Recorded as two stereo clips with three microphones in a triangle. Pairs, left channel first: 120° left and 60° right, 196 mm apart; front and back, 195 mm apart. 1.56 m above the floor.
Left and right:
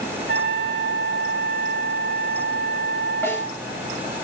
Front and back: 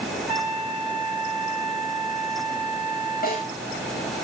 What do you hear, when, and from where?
0.3 s a trumpet: 40° right, 3.5 m
3.2 s a snare drum: 40° left, 9.5 m